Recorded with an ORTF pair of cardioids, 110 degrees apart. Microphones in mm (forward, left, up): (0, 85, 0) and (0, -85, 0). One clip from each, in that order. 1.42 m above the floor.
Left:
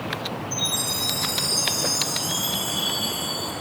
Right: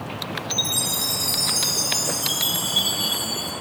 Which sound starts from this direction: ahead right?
A chime, at 0.5 s.